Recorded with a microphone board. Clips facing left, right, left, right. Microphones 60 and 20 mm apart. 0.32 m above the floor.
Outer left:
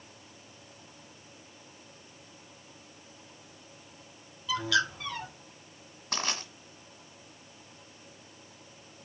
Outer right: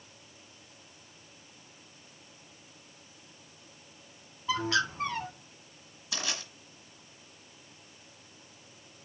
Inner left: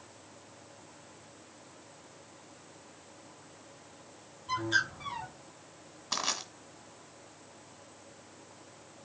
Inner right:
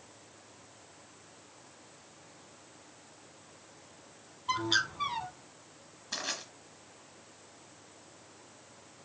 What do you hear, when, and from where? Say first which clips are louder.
4.5 s a bird: outer left 1 dB, even; 35° right (ahead or behind), 1.2 m
6.1 s crushing: outer left 3 dB, inner left 4 dB; 50° left (ahead or behind), 1.8 m